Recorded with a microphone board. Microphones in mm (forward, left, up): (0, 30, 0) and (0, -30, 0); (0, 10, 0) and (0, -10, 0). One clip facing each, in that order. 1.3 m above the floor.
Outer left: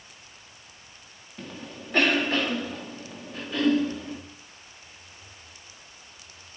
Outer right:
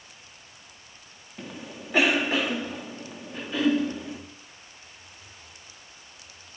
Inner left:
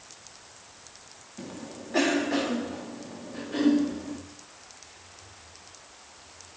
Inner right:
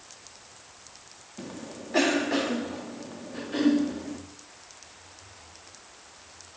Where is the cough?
10° right (ahead or behind), 2.5 m.